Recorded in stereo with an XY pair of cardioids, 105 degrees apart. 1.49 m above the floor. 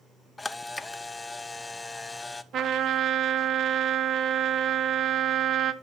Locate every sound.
0.4 s a camera shutter: 20° left, 0.9 m
2.5 s a trumpet: 65° right, 1.4 m